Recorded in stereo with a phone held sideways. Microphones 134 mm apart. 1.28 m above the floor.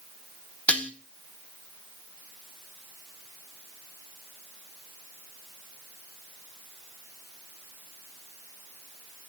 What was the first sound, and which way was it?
Dishes clattering, 10° left (ahead or behind).